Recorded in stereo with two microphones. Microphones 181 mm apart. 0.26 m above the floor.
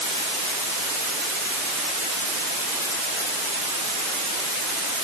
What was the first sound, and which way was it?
Only background noise.